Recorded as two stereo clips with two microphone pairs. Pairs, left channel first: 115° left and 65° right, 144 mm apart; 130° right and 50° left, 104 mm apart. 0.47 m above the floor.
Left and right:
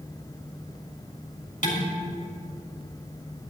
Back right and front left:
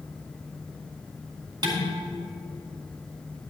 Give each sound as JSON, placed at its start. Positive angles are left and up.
{"t": 1.6, "sound": "dishes clattering", "azimuth_deg": 95, "distance_m": 3.0}